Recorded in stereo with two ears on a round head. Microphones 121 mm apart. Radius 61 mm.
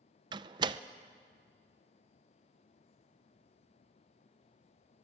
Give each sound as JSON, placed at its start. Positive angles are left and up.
{"t": 0.3, "sound": "a door slam", "side_deg": -35, "distance_m": 0.6}